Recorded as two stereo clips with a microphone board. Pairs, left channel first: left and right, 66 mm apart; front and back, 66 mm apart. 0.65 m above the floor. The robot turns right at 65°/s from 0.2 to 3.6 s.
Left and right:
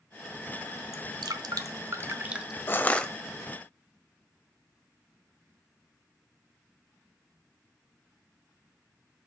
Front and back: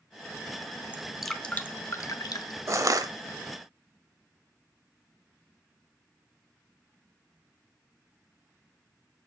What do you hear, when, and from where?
0.9 s dripping: 110° right, 0.8 m; by 2.6 s 5° right, 0.8 m
2.7 s crushing: 140° left, 0.8 m; by 3.1 s 170° left, 0.8 m